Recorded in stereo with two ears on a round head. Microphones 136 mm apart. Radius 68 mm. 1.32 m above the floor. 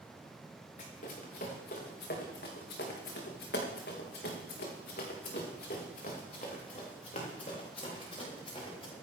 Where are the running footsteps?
50° left (ahead or behind), 5 m; by 8.9 s 35° left (ahead or behind), 7 m.